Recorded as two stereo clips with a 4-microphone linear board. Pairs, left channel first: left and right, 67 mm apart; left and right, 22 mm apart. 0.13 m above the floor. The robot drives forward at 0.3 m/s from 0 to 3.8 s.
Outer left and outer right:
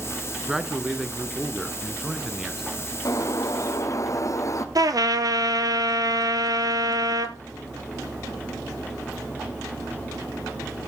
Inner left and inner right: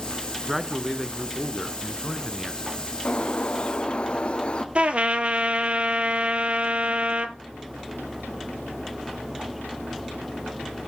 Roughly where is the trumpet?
Right.